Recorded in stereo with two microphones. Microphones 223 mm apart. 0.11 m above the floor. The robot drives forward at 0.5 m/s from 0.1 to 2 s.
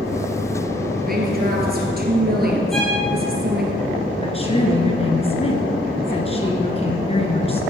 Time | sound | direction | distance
1.1 | a woman speaking | 45° right (ahead or behind) | 2 m
2.7 | a violin | centre (ahead or behind) | 4 m
4.1 | a woman speaking | 25° left (ahead or behind) | 1.7 m